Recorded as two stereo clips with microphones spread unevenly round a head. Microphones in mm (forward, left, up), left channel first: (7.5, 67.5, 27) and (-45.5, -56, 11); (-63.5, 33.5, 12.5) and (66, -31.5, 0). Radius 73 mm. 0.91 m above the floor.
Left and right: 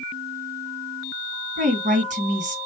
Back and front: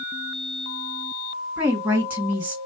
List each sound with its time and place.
1.6 s a woman speaking: 100° right, 1.6 m